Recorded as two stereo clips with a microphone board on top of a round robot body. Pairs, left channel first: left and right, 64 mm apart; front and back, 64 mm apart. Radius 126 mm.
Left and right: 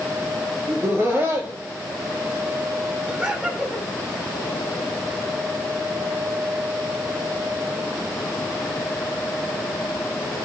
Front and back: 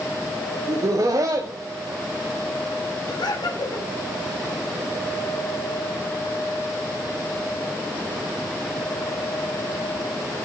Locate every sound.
0.7 s laughter: 150° right, 2.5 m
3.1 s laughter: 20° right, 6.5 m